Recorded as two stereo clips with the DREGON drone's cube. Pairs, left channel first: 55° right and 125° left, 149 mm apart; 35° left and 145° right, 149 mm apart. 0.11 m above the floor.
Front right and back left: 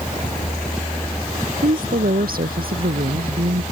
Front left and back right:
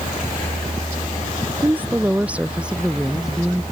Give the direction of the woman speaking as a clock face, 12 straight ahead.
7 o'clock.